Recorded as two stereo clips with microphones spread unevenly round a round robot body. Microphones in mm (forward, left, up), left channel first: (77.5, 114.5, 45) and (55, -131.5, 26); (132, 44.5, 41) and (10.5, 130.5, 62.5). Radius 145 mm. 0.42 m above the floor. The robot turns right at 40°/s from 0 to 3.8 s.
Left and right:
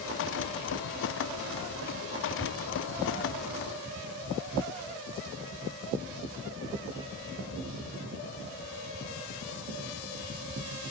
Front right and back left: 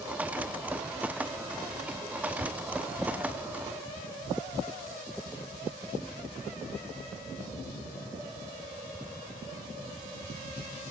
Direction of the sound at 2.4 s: 165° left.